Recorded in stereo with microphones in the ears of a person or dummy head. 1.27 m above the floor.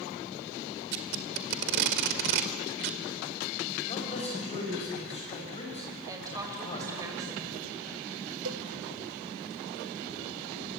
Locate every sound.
0.9 s tape being pulled: 60° right (ahead or behind), 1.7 m
3.9 s a man speaking: 30° left (ahead or behind), 6.5 m
6.1 s a woman speaking: 20° right (ahead or behind), 6 m
8.4 s a cowbell: 65° right (ahead or behind), 1.0 m